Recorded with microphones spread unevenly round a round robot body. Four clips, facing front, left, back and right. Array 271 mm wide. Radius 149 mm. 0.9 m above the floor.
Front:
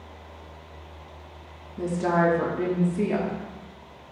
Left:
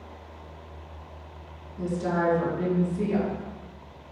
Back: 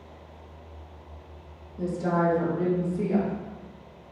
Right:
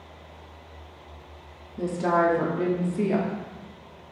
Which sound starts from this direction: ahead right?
A woman speaking, at 1.8 s.